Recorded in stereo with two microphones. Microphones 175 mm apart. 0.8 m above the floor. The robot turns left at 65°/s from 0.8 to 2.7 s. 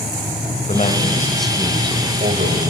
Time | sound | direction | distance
0.7 | a man speaking | 40° left | 4 m